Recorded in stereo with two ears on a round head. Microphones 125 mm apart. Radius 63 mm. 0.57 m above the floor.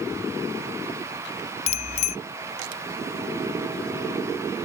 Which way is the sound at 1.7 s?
50° left (ahead or behind).